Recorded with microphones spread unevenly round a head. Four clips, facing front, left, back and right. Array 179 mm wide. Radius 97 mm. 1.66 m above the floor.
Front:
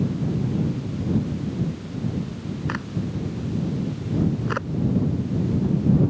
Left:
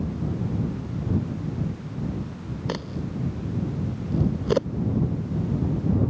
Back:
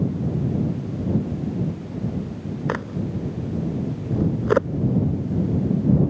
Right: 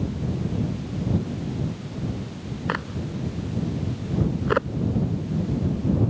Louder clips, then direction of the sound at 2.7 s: Right 2 dB, back 4 dB; straight behind.